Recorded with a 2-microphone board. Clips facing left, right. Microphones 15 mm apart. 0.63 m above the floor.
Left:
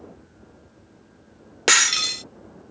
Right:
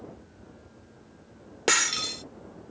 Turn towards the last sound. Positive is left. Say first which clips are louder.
# left 7 dB
turn(degrees=35)  # may be behind; listen again after turning